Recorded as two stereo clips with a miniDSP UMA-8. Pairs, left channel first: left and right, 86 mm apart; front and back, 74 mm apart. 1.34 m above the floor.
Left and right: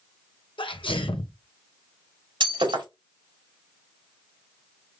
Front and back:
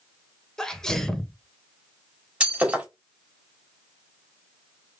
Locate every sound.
0.6 s a sneeze: 85° left, 1.1 m
2.4 s breaking glass: 105° right, 2 m